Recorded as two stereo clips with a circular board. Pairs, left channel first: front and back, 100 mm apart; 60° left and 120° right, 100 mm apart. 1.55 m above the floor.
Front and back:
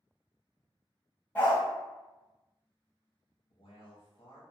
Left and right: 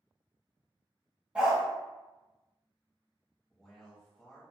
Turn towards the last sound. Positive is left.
turn(degrees=-20)